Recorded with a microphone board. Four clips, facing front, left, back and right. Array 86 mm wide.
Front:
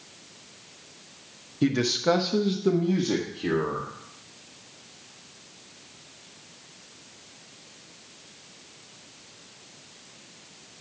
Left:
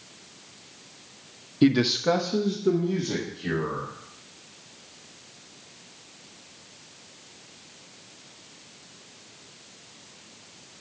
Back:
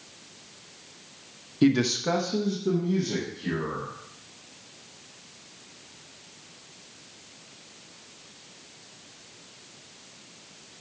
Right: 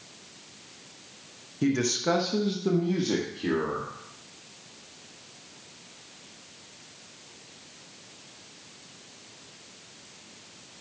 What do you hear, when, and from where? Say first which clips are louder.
1.6 s a man speaking: left 5 dB, back 1 dB; 115° left, 0.8 m; by 3.9 s 40° right, 1.9 m